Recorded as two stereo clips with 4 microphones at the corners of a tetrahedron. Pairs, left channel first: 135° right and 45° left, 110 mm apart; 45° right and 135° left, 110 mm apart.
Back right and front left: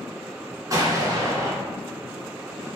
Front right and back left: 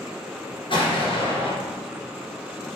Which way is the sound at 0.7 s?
10° right.